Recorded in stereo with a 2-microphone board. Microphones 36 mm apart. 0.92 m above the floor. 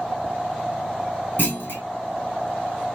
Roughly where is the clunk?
Left.